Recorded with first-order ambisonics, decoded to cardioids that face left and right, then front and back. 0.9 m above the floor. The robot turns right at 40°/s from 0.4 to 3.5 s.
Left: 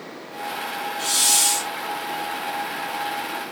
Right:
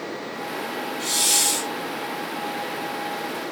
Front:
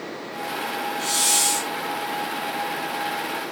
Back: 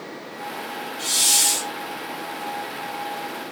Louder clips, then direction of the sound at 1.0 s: Left 2 dB, back 3 dB; 120° left.